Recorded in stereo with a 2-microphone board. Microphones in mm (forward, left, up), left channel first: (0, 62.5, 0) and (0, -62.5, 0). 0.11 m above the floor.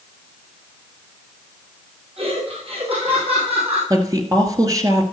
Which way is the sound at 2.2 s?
50° right (ahead or behind).